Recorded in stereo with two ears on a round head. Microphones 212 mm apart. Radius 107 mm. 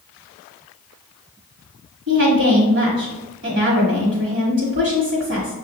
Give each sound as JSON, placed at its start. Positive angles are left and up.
{"t": 2.1, "sound": "a woman speaking", "side_deg": -55, "distance_m": 1.3}